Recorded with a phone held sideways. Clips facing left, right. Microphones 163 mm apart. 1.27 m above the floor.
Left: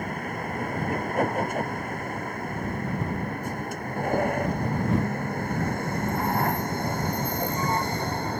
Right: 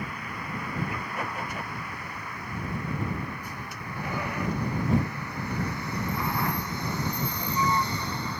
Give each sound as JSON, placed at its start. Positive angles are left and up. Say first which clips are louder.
{"t": 0.0, "sound": "a vehicle", "louder": "left 6 dB", "side_deg": 50}